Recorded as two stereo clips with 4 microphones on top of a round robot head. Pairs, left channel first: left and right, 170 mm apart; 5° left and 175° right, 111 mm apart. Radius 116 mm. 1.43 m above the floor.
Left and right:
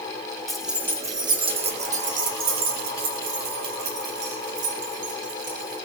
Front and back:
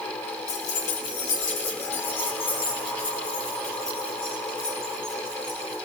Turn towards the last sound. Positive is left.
turn(degrees=-80)